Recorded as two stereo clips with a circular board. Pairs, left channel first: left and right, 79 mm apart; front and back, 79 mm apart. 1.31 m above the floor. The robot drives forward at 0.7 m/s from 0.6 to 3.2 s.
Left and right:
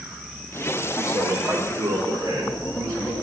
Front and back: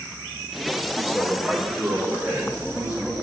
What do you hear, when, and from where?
1.0 s a man speaking: 115° right, 3 m; by 3.1 s 135° right, 3.5 m